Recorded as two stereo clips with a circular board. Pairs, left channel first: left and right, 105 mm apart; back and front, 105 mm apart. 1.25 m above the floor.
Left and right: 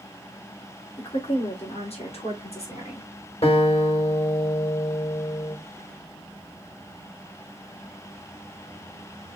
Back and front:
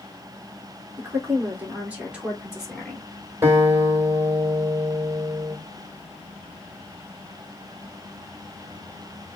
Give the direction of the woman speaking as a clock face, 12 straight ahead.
10 o'clock.